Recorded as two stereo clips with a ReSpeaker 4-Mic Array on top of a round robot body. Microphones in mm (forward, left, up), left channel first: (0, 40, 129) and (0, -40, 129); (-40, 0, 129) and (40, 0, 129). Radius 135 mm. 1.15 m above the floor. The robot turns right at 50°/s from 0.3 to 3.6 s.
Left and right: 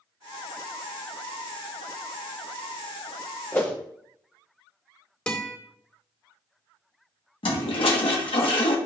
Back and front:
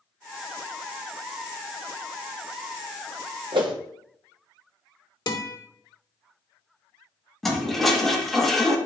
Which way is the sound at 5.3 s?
165° left.